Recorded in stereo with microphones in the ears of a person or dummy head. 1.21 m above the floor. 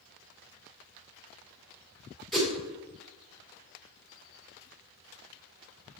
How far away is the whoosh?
About 1.4 m.